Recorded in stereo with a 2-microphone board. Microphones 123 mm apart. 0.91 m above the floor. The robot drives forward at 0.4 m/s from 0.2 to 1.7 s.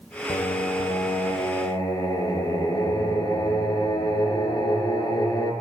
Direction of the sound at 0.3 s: 65° left (ahead or behind).